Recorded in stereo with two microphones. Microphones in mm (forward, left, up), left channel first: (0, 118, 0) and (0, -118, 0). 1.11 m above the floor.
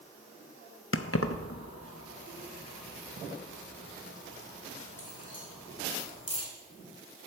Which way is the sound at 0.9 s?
60° left (ahead or behind).